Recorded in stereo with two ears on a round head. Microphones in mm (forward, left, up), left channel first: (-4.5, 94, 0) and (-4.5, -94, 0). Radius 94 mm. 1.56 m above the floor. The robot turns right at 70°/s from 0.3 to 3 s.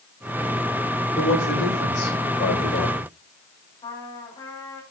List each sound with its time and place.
1.1 s a man speaking: 25° left, 7 m; by 3.1 s 155° left, 7 m
3.8 s a trumpet: 20° left (ahead or behind), 6 m